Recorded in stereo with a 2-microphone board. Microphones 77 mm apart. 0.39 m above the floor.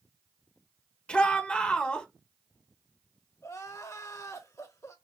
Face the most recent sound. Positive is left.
turn(degrees=45)  # may be behind; listen again after turning